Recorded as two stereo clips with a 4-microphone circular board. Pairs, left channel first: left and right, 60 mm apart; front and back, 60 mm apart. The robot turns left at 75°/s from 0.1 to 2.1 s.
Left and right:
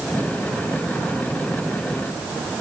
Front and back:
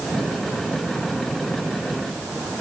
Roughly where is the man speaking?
I don't hear a man speaking.